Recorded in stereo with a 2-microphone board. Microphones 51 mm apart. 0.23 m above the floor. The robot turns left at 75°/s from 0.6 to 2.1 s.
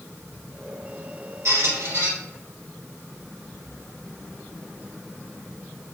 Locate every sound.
1.4 s a squeak: 105° right, 1.6 m; by 2.1 s 155° right, 1.6 m